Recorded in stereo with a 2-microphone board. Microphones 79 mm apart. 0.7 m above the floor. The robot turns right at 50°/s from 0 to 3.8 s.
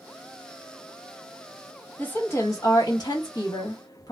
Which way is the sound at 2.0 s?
25° left.